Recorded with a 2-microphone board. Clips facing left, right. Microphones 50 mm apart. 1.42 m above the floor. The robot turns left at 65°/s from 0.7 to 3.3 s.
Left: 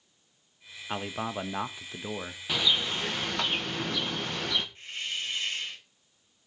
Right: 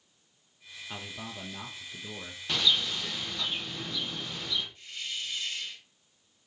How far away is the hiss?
About 2 m.